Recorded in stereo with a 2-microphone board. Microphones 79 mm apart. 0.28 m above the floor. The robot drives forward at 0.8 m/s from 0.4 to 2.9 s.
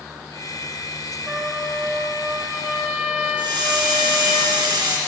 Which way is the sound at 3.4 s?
75° right (ahead or behind).